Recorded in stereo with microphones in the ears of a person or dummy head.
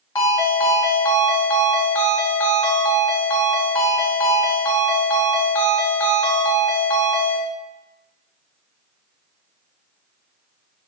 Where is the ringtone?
20° left (ahead or behind), 1.4 m.